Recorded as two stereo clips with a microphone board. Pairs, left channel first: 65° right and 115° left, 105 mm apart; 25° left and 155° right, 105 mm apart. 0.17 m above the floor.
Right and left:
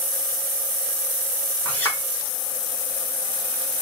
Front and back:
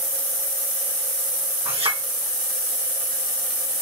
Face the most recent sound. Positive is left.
turn(degrees=-140)